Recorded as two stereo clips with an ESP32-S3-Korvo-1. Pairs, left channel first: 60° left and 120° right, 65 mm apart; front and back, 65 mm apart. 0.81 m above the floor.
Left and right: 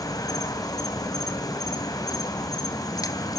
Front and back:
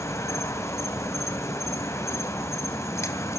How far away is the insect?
About 3 m.